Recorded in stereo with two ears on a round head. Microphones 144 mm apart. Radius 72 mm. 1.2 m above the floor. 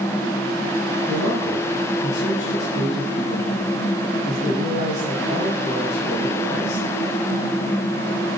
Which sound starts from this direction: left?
A man speaking, at 1.1 s.